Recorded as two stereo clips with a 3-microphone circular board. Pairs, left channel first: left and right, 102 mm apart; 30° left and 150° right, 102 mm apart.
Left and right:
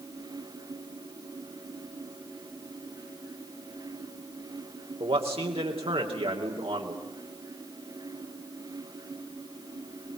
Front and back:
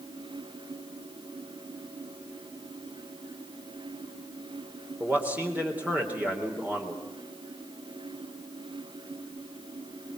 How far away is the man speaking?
About 3.5 m.